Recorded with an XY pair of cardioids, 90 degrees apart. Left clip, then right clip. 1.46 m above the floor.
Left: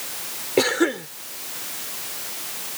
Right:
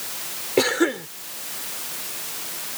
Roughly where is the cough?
Ahead.